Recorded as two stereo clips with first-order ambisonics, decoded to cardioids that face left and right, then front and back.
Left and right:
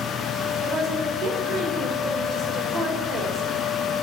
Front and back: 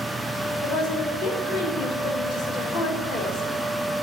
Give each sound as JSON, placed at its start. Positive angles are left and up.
{"t": 0.6, "sound": "a woman speaking", "azimuth_deg": -40, "distance_m": 1.6}